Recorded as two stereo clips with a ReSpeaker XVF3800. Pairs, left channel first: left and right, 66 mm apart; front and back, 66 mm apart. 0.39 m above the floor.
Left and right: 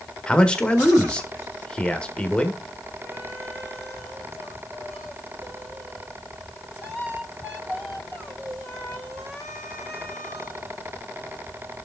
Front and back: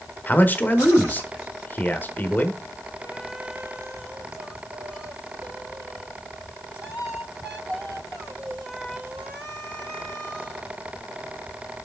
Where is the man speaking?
25° left, 1.0 m.